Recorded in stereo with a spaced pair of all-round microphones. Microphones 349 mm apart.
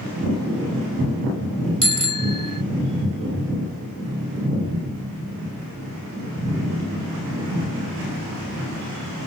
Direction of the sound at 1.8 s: 60° right (ahead or behind).